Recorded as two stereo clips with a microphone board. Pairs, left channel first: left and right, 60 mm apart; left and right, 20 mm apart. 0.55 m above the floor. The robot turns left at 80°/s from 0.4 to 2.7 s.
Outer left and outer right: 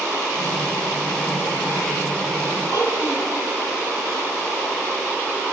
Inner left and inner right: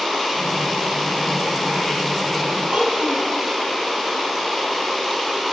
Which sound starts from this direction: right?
A child speaking, at 2.7 s.